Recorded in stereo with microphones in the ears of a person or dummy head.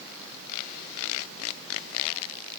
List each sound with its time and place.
Only background noise.